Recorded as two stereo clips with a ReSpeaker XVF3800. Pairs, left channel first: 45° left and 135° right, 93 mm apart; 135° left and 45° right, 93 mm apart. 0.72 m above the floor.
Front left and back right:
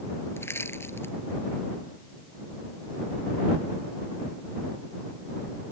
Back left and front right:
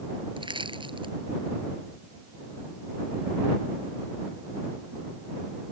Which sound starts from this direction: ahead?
Crushing, at 0.4 s.